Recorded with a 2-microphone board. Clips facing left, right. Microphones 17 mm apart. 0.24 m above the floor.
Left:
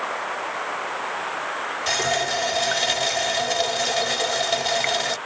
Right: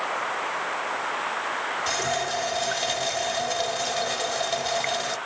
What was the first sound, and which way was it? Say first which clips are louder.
A running tap: left 6 dB; 20° left (ahead or behind).